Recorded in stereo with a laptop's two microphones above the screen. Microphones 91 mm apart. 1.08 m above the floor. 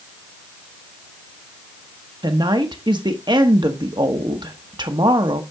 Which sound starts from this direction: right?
A woman speaking, at 2.2 s.